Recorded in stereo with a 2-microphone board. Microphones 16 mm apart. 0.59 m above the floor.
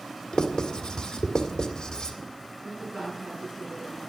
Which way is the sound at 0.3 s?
55° left (ahead or behind).